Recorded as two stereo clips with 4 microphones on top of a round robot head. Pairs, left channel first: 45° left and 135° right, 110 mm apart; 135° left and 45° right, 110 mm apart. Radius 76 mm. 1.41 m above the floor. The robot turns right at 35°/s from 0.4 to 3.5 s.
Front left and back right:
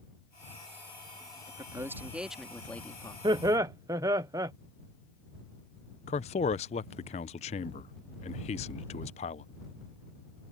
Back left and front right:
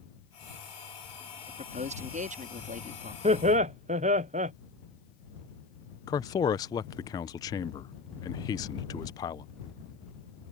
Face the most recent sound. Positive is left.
turn(degrees=75)